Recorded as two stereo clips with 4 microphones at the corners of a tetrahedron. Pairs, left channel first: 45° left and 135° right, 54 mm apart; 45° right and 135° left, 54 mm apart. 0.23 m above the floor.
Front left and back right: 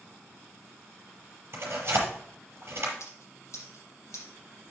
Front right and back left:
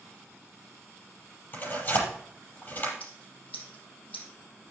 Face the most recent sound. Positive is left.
turn(degrees=20)